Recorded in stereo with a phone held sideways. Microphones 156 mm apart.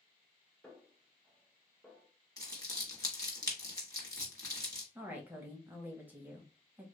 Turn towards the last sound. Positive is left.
turn(degrees=-10)  # may be behind; listen again after turning